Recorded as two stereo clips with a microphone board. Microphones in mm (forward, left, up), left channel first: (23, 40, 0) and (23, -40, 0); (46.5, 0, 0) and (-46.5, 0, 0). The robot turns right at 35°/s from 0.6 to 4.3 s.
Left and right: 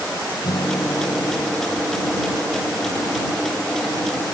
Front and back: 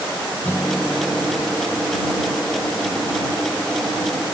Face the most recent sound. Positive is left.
turn(degrees=-165)